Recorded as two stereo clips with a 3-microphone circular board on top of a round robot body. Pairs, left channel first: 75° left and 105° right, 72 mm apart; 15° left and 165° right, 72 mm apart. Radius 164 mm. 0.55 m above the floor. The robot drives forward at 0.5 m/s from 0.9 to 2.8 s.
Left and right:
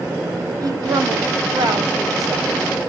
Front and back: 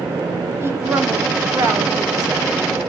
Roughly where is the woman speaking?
Behind right.